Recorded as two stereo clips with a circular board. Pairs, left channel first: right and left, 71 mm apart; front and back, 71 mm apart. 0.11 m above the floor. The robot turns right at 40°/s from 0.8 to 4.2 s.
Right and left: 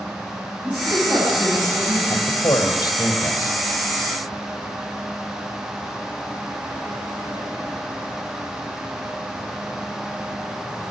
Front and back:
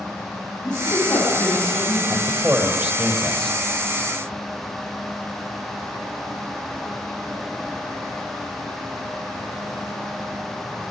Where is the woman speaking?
20° left, 10 m; by 2.0 s 70° left, 10 m.